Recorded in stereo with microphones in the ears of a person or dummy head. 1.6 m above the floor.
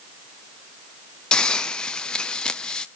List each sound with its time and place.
1.3 s a hiss: 10° left (ahead or behind), 0.9 m